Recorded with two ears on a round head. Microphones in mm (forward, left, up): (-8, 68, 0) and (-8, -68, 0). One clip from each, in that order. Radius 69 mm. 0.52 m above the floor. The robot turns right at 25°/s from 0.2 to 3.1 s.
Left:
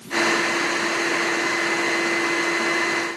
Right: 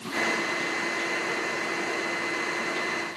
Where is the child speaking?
I don't hear a child speaking.